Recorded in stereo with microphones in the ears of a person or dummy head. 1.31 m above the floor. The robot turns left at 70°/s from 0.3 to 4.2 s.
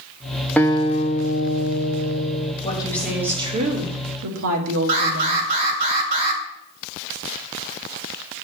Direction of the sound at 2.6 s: 30° left.